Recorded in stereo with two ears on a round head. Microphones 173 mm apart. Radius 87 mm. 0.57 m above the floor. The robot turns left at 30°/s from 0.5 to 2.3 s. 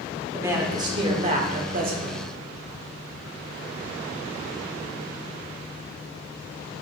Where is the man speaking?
15° right, 1.2 m; by 2.3 s 70° right, 1.2 m.